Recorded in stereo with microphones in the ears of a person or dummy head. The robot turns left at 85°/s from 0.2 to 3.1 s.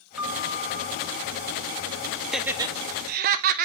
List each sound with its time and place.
0.2 s a piano: straight ahead, 1.2 m; by 2.1 s 160° right, 1.2 m
2.3 s laughter: centre (ahead or behind), 0.8 m; by 3.6 s 50° right (ahead or behind), 0.8 m